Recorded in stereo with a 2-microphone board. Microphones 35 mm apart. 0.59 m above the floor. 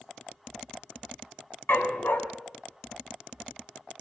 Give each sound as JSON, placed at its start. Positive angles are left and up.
{"t": 1.7, "sound": "a dog barking", "side_deg": 70, "distance_m": 2.0}